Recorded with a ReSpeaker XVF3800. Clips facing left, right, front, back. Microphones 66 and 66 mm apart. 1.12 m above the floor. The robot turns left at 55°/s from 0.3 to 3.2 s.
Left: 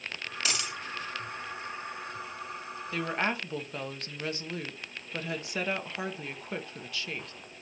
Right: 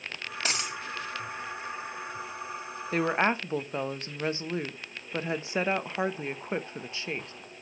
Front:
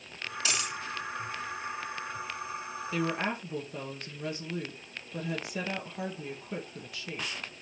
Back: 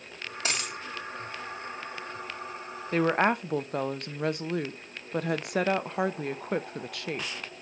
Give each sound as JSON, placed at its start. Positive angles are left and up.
{"t": 0.5, "sound": "a dropped coin", "azimuth_deg": -140, "distance_m": 2.0}
{"t": 2.9, "sound": "a woman speaking", "azimuth_deg": -135, "distance_m": 0.8}